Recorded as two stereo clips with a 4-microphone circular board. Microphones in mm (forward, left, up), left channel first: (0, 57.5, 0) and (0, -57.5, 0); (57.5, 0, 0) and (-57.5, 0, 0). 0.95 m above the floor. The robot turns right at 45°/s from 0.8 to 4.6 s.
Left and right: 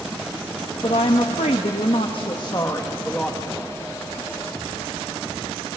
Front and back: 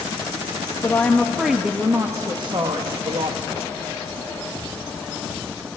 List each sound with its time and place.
0.8 s a woman speaking: 65° left, 1.1 m; by 3.4 s straight behind, 1.1 m